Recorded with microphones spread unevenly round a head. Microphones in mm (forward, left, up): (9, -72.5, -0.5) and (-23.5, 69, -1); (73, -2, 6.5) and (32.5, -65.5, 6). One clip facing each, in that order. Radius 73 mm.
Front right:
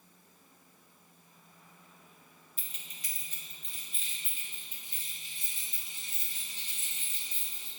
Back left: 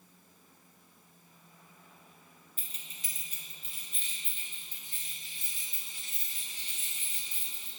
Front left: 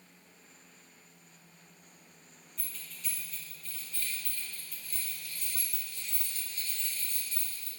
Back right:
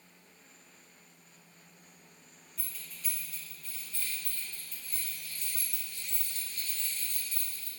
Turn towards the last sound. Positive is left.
turn(degrees=-140)